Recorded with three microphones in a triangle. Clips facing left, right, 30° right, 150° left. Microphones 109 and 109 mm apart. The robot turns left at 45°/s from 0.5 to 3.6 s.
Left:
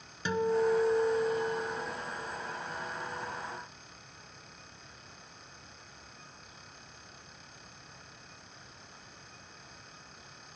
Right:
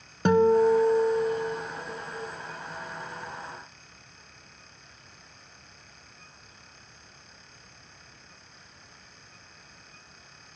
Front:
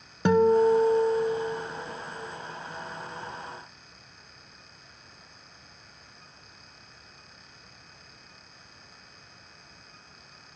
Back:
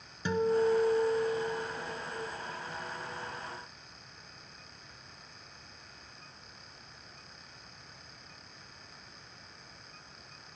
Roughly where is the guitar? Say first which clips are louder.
Right 9 dB, front 8 dB; ahead right.